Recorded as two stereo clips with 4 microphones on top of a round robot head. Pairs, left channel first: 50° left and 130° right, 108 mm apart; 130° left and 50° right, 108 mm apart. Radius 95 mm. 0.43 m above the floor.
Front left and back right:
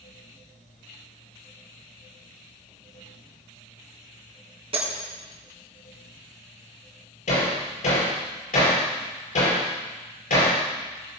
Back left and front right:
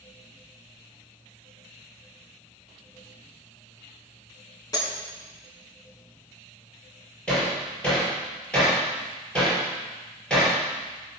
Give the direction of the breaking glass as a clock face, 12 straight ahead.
6 o'clock.